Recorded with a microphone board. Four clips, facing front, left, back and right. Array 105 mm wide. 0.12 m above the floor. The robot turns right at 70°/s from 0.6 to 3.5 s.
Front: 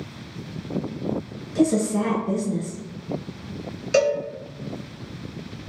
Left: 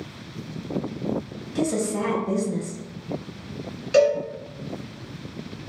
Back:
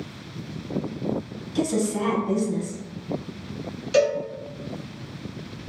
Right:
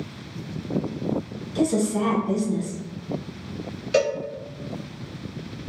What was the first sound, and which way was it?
A woman speaking, 25° left.